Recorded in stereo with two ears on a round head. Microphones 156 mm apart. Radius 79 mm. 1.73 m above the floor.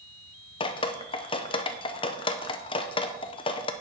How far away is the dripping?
About 0.7 m.